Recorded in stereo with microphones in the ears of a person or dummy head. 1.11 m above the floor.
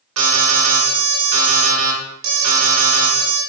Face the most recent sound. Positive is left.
turn(degrees=-80)